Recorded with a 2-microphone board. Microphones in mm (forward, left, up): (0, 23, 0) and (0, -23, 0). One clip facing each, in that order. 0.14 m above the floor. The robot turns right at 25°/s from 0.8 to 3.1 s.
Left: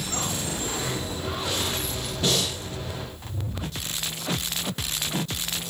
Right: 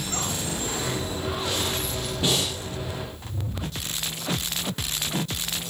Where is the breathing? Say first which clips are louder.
Even; 20° right (ahead or behind), 3.5 m; by 2.6 s 25° right (ahead or behind), 3.5 m.